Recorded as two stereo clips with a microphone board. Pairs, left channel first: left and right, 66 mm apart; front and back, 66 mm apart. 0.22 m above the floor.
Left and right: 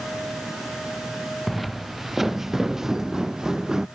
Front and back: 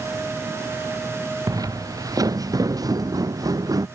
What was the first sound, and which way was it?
Footsteps, straight behind.